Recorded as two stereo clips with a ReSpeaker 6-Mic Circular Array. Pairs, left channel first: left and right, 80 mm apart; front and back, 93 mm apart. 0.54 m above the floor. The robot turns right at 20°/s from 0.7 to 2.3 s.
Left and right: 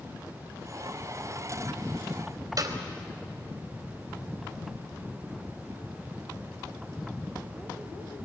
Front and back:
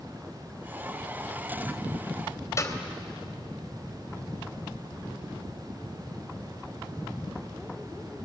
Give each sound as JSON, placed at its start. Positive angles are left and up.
{"t": 2.6, "sound": "a clap", "azimuth_deg": -55, "distance_m": 2.5}